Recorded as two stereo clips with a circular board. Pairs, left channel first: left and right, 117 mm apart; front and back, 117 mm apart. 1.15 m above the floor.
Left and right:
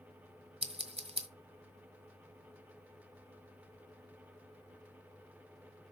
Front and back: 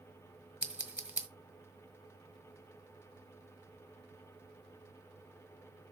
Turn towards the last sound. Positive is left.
turn(degrees=-100)